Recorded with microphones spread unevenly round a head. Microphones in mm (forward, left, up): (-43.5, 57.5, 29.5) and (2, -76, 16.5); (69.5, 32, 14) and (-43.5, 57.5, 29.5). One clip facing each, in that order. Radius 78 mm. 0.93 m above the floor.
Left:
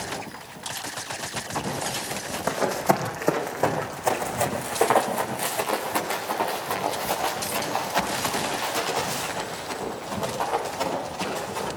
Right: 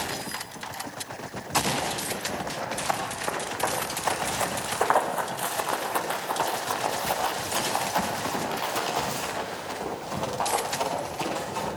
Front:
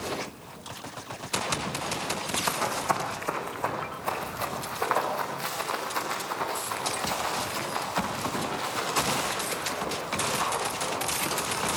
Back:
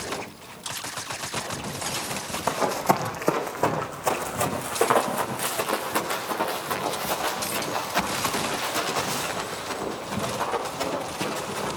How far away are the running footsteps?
About 3 m.